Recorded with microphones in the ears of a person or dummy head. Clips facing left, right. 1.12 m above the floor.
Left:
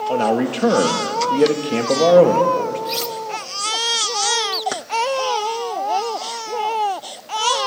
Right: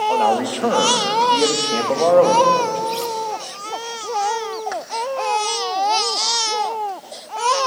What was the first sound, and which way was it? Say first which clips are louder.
A man speaking: left 2 dB; 20° left (ahead or behind).